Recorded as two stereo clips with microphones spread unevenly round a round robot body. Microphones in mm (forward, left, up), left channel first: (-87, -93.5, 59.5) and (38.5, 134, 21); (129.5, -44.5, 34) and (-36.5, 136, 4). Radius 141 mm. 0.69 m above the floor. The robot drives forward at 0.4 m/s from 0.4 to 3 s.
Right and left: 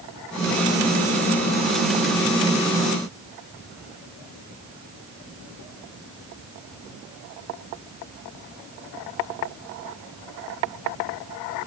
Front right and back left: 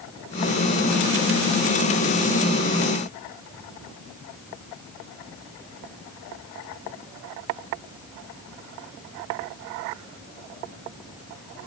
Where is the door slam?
I don't hear a door slam.